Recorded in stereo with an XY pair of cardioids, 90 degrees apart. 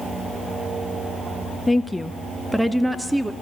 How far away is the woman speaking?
About 1.2 m.